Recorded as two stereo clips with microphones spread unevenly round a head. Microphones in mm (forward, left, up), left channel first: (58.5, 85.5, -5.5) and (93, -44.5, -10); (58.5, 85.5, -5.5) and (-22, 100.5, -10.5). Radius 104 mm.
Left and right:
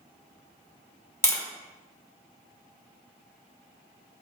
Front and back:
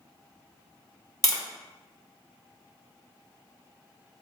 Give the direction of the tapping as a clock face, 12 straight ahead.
11 o'clock.